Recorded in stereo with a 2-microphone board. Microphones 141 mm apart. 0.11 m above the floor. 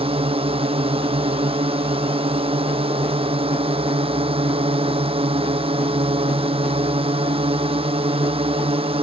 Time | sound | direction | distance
0.0 | a drone | 45° right (ahead or behind) | ?